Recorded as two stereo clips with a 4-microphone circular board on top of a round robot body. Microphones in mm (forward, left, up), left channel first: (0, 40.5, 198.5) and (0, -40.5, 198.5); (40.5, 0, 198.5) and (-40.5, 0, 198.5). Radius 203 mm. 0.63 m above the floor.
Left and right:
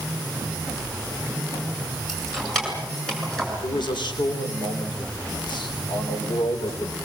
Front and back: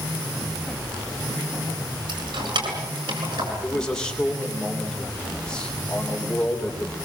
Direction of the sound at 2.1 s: Straight behind.